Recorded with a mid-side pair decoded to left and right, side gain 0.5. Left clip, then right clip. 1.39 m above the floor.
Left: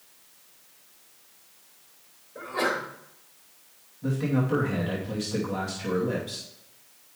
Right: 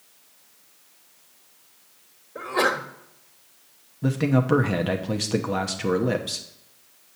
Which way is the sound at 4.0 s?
60° right.